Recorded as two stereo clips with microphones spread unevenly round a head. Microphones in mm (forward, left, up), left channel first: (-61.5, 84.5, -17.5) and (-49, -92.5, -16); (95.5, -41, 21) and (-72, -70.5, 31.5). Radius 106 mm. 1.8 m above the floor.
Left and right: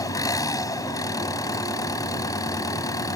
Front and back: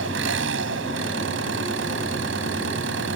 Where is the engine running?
165° left.